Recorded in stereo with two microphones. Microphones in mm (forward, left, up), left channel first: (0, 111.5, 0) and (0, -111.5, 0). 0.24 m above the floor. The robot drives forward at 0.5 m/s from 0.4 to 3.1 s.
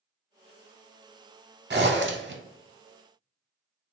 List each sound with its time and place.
1.7 s a zipper: 50° right (ahead or behind), 0.6 m; by 2.4 s 55° right (ahead or behind), 0.6 m